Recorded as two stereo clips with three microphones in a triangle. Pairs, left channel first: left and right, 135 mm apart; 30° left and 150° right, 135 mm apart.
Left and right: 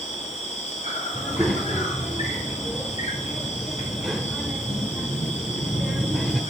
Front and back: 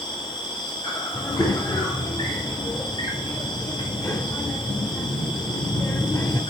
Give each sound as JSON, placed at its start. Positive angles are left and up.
{"t": 0.0, "sound": "an insect", "azimuth_deg": 80, "distance_m": 1.8}
{"t": 1.1, "sound": "a child speaking", "azimuth_deg": 0, "distance_m": 0.6}